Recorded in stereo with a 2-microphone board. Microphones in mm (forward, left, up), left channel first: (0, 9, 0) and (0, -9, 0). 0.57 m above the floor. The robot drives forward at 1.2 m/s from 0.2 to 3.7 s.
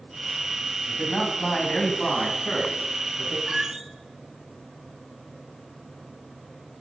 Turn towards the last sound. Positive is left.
turn(degrees=-20)  # may be behind; listen again after turning